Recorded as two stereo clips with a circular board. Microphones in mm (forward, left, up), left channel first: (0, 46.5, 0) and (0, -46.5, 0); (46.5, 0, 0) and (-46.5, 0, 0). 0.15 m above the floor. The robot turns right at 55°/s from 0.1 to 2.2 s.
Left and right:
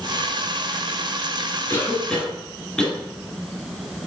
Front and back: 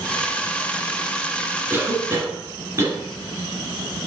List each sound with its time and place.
1.7 s a cough: 135° left, 1.4 m; by 3.0 s 165° left, 1.4 m